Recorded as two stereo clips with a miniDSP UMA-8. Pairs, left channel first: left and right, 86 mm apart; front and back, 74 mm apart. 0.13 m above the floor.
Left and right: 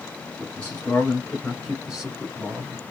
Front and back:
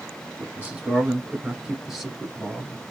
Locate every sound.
0.4 s a man speaking: 145° left, 1.9 m; by 2.8 s 70° right, 1.7 m